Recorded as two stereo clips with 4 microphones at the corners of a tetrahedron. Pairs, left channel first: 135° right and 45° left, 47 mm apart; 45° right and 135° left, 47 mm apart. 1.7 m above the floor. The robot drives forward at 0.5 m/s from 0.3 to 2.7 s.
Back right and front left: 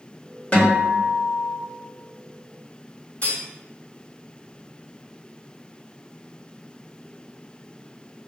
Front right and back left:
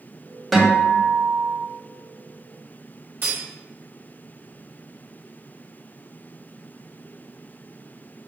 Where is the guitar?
130° right, 1.7 m; by 1.6 s 150° right, 2.0 m.